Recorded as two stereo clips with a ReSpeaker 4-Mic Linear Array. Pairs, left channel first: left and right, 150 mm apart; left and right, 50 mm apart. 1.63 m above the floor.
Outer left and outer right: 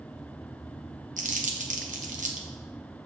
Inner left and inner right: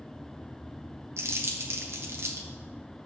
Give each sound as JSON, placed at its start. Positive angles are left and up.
{"t": 1.2, "sound": "crumpling", "side_deg": -65, "distance_m": 1.0}